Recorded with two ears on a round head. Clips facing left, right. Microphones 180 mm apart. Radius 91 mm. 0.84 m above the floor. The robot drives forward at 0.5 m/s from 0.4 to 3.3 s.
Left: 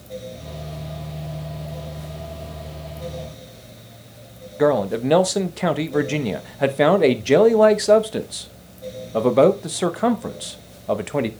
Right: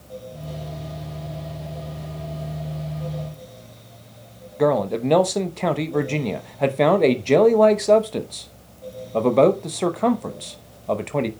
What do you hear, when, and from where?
4.6 s a man speaking: 5° left (ahead or behind), 0.7 m